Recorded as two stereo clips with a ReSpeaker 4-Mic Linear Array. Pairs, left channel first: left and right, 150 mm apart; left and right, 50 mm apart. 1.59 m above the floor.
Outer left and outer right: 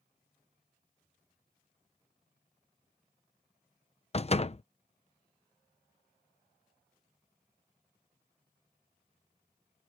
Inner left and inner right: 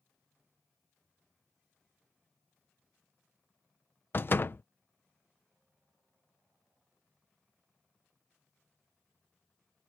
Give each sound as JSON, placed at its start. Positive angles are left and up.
{"t": 4.1, "sound": "a door slam", "side_deg": 40}